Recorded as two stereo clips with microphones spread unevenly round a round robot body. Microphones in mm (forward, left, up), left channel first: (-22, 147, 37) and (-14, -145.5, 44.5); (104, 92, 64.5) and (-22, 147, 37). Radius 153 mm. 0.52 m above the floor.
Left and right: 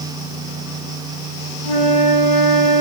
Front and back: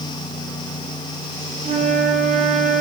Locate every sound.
1.6 s a flute: 130° left, 9 m